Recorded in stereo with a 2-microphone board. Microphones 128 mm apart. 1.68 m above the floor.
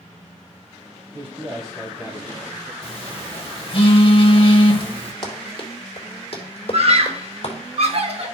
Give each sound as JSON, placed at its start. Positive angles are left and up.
{"t": 1.1, "sound": "a man speaking", "side_deg": -55, "distance_m": 1.0}
{"t": 2.8, "sound": "a phone buzzing", "side_deg": 50, "distance_m": 1.4}
{"t": 5.2, "sound": "running footsteps", "side_deg": 40, "distance_m": 2.5}
{"t": 6.7, "sound": "a scream", "side_deg": -55, "distance_m": 0.9}